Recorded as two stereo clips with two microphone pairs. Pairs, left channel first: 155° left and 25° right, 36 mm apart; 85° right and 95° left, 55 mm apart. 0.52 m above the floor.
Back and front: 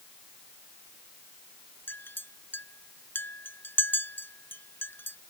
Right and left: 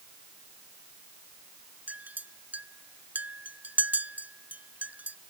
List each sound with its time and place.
1.9 s a clink: 155° left